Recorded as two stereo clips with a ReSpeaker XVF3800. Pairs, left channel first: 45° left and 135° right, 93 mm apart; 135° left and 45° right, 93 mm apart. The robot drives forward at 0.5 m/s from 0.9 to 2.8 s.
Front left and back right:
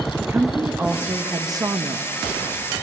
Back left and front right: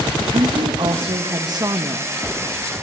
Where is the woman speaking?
70° right, 1.0 m; by 2.1 s 105° right, 1.0 m.